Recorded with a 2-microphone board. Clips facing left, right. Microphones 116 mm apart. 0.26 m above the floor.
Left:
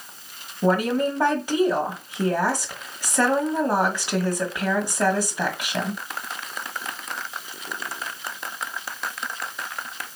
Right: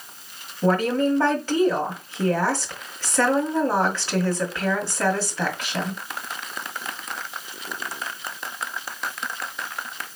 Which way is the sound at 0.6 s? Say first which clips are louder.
Right 1 dB; 15° left (ahead or behind).